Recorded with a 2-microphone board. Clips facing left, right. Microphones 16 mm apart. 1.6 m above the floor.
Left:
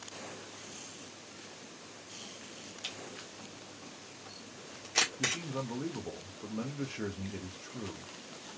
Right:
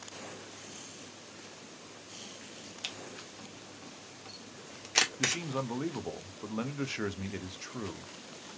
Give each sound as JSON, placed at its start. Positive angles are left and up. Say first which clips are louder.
{"t": 2.8, "sound": "a camera shutter", "louder": "right 2 dB", "side_deg": -20, "distance_m": 1.3}
{"t": 5.2, "sound": "a man speaking", "louder": "right 2 dB", "side_deg": -50, "distance_m": 0.6}